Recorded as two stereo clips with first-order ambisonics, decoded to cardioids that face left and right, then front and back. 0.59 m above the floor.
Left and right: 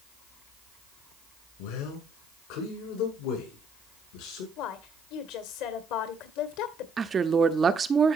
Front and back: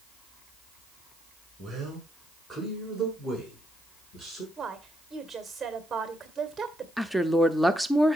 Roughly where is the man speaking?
Left.